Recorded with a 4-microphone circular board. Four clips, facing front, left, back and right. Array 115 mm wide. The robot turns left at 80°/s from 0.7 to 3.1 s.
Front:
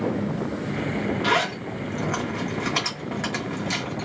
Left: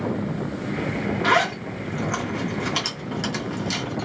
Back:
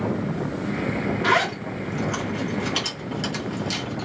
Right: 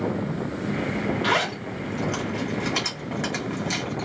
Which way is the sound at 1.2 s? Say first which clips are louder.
Left 4 dB, back 4 dB; 105° left.